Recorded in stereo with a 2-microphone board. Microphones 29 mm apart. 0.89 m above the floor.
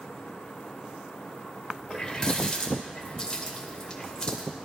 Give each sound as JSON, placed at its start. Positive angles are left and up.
{"t": 1.9, "sound": "a running tap", "side_deg": 25, "distance_m": 2.5}